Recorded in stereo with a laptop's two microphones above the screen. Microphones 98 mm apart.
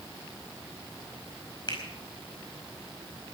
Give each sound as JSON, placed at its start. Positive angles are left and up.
{"t": 1.7, "sound": "a finger snap", "side_deg": 50, "distance_m": 5.0}